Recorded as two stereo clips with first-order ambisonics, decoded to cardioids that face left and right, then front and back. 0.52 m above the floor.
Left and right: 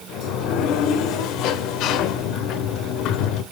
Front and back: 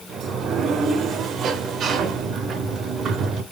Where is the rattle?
No rattle in this recording.